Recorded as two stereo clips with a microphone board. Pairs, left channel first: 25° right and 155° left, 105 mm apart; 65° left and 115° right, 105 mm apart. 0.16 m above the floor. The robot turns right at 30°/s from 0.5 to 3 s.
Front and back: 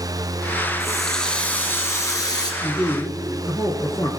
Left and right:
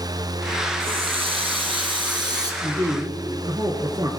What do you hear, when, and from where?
0.8 s a running tap: 115° right, 1.6 m; by 2.5 s 65° right, 1.6 m
2.6 s a man speaking: 85° right, 1.7 m; by 4.1 s 70° right, 1.7 m